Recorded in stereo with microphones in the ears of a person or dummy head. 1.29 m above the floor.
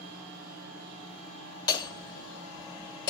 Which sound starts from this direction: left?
Hammering, at 1.7 s.